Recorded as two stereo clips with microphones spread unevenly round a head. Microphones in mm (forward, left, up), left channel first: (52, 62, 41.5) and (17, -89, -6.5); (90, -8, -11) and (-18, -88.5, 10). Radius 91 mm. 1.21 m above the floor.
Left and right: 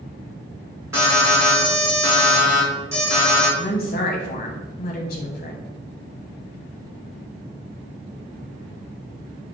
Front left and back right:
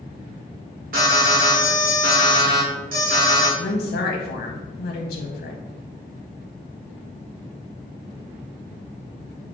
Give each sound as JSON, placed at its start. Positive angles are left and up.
{"t": 0.9, "sound": "an alarm", "azimuth_deg": -160, "distance_m": 2.0}
{"t": 3.6, "sound": "a woman speaking", "azimuth_deg": 35, "distance_m": 0.6}